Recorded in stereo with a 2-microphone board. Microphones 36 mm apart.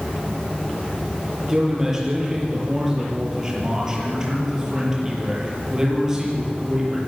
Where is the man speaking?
15° right (ahead or behind), 7.5 m.